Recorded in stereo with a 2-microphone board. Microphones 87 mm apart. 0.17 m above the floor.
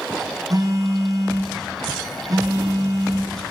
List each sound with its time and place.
0.5 s a phone buzzing: 45° right (ahead or behind), 1.4 m